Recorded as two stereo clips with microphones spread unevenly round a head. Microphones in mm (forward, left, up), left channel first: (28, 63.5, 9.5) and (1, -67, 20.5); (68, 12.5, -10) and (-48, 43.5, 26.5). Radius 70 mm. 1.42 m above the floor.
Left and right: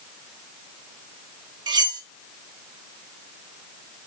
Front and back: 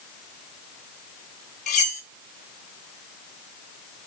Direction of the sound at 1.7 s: 55° right.